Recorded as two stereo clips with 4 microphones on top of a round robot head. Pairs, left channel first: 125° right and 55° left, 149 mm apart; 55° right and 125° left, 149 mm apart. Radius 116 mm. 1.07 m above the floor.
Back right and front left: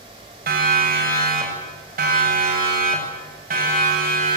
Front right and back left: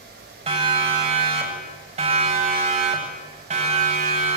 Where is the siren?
75° left, 8 m; by 4.4 s 85° left, 10 m.